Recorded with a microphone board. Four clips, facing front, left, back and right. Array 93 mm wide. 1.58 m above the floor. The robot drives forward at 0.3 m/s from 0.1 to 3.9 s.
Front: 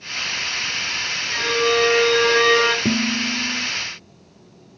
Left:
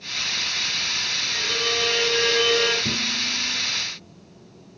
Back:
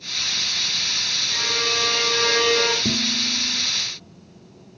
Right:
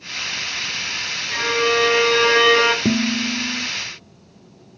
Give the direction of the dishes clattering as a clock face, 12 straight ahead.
2 o'clock.